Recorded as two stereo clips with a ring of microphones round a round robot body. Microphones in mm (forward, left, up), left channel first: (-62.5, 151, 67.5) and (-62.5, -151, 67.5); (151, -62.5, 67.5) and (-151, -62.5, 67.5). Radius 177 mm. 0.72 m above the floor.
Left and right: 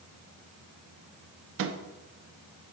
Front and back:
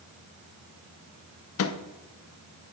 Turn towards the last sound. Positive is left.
turn(degrees=-40)